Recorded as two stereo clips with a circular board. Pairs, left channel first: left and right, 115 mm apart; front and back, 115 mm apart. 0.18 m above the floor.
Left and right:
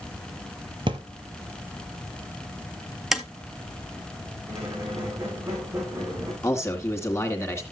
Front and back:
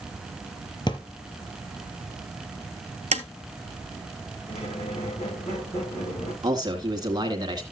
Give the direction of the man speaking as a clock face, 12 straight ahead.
7 o'clock.